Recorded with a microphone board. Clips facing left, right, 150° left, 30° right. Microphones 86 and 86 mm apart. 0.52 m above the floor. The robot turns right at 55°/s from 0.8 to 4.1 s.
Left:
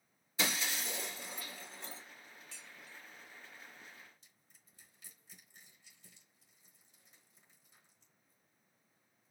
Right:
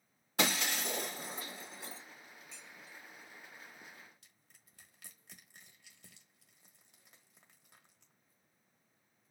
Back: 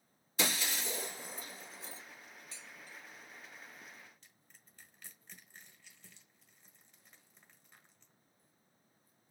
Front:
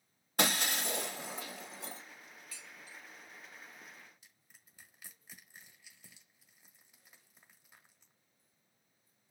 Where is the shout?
I don't hear a shout.